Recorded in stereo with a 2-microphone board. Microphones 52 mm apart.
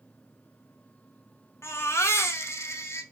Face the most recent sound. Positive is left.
turn(degrees=60)  # may be behind; listen again after turning